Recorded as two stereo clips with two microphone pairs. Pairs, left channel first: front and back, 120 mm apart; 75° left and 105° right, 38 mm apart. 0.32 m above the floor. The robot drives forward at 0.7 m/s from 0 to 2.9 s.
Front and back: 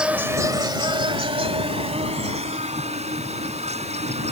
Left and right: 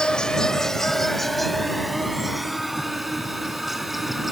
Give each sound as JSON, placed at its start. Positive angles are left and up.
{"t": 0.0, "sound": "an insect", "azimuth_deg": 105}